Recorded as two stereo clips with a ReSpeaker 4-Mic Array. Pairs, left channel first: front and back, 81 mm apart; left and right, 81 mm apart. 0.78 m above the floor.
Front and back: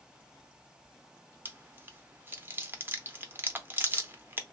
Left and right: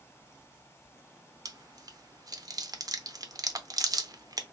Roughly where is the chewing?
Behind right.